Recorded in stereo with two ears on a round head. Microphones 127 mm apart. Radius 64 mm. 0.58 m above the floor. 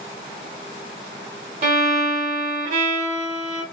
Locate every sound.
1.6 s a violin: 60° right (ahead or behind), 0.9 m